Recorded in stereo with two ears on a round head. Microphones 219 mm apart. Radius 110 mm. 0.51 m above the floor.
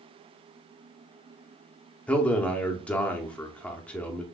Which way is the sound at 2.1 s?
5° left (ahead or behind).